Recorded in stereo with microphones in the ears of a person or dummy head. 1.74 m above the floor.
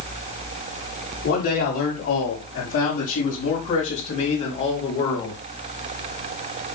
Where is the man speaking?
55° left (ahead or behind), 5 m; by 5.4 s 30° left (ahead or behind), 4 m.